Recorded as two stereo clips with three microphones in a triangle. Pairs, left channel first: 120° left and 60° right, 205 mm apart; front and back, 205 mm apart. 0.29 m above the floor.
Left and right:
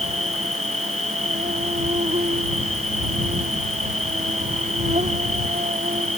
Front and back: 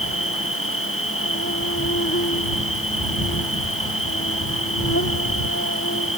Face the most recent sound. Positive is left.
turn(degrees=0)